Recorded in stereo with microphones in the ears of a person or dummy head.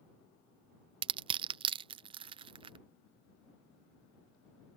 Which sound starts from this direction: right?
Crushing, at 1.0 s.